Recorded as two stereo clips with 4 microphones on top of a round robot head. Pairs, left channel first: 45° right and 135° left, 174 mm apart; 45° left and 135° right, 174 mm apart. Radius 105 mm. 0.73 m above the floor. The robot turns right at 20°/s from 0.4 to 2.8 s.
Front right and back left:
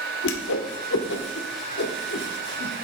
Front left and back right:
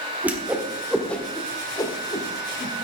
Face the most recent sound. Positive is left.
turn(degrees=-5)